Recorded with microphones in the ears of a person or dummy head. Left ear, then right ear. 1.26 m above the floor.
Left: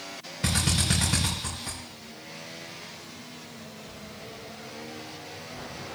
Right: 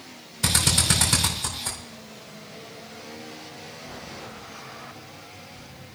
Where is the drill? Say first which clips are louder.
Right 5 dB; 40° right (ahead or behind), 3 m.